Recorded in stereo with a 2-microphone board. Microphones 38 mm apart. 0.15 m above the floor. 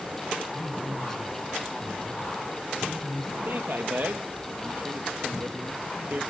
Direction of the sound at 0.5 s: 10° left (ahead or behind).